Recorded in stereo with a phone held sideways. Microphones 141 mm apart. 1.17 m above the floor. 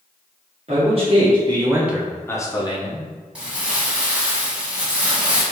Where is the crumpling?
10° right (ahead or behind), 1.2 m.